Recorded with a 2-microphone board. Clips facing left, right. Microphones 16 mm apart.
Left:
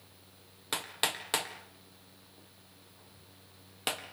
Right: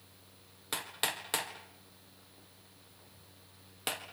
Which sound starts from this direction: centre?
Hammering, at 0.7 s.